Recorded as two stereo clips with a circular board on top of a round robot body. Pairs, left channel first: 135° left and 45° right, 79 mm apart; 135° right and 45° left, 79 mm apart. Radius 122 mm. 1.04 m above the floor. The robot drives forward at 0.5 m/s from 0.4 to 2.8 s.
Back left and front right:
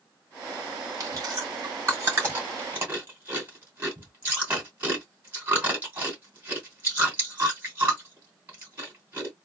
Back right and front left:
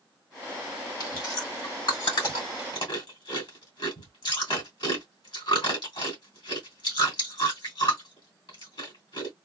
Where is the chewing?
95° right, 2.5 m; by 9.3 s 115° right, 2.5 m.